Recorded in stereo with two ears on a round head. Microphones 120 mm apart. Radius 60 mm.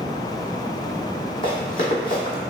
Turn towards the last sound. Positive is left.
turn(degrees=35)  # may be behind; listen again after turning